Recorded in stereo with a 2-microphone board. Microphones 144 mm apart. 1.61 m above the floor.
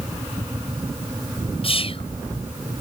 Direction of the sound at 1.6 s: 40° left (ahead or behind).